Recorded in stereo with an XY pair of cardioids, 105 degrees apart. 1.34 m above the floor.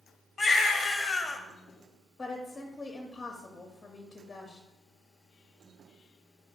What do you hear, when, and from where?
0.4 s a baby crying: 30° left, 0.6 m
2.2 s a woman speaking: 25° left, 0.6 m